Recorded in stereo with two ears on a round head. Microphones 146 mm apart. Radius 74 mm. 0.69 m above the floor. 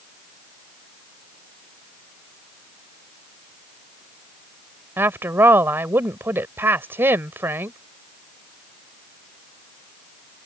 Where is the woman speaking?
15° right (ahead or behind).